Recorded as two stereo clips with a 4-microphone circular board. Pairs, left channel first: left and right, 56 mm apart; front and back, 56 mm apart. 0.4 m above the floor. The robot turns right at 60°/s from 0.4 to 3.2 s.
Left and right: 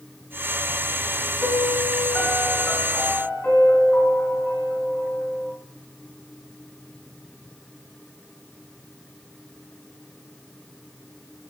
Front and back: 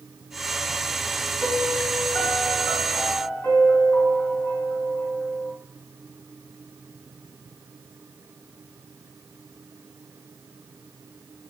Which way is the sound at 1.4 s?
70° right.